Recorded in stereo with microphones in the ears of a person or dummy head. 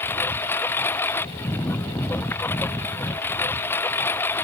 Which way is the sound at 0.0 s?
10° left (ahead or behind).